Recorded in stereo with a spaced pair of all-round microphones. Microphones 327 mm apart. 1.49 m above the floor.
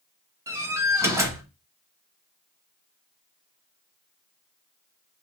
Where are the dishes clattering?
No dishes clattering in this recording.